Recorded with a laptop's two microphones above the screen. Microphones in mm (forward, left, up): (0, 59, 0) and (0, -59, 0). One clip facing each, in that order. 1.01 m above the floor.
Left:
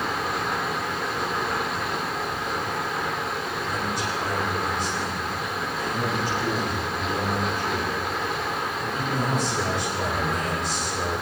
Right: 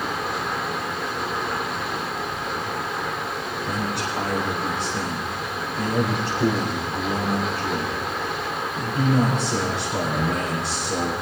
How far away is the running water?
About 1.3 m.